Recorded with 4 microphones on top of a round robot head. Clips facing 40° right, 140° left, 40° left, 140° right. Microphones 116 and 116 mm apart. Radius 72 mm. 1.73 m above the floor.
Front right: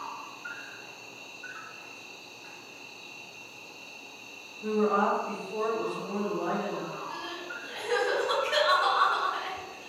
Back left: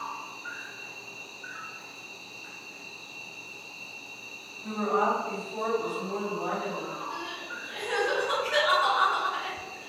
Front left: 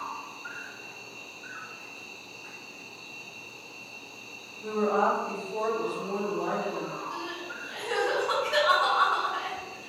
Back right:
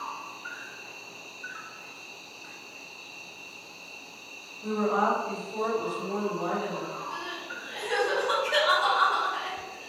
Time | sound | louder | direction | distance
0.0 | an insect | back left 2 dB, even | 40° left | 1.8 m
4.6 | a woman speaking | front right 1 dB, front left 1 dB | 5° left | 1.1 m
7.1 | crying | back left 1 dB, front left 1 dB | 55° right | 1.9 m